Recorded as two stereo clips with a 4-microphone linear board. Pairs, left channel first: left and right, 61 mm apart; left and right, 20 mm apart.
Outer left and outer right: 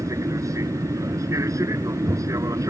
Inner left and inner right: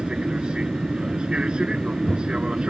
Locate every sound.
0.0 s an aircraft: 60° right (ahead or behind); by 2.7 s 55° right (ahead or behind)